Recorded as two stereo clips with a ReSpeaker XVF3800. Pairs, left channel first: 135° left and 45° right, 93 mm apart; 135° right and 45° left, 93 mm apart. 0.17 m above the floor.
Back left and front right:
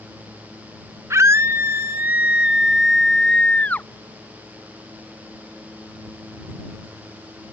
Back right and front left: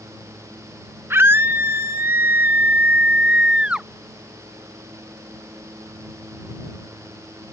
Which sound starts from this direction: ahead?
A scream, at 1.1 s.